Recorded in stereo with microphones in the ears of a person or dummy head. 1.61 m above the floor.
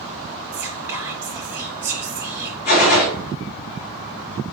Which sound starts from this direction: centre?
Whispering, at 0.5 s.